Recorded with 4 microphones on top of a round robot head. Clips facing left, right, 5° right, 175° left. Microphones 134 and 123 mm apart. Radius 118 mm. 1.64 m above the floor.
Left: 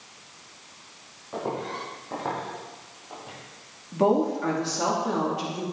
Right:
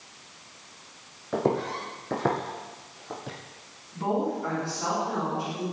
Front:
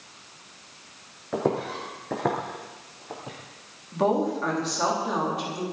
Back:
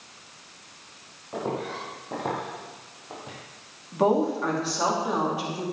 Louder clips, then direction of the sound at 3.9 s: Left 6 dB, back 1 dB; 90° left.